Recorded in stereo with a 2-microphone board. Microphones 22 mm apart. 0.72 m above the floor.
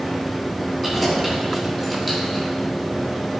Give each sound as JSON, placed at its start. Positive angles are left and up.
{"t": 0.8, "sound": "keys jangling", "side_deg": 10, "distance_m": 3.0}